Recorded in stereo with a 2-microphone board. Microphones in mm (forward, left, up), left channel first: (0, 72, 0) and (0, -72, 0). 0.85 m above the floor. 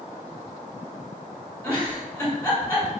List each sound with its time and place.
1.6 s a giggle: 15° left (ahead or behind), 1.4 m